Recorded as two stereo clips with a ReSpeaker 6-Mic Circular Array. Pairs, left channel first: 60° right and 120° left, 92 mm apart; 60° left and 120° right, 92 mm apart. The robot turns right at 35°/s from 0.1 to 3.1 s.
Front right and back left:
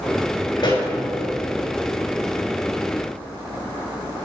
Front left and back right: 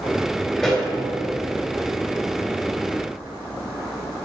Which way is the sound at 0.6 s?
25° right.